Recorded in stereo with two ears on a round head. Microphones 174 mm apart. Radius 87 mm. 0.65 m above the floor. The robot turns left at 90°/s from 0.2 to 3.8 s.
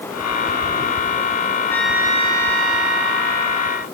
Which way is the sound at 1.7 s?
15° left.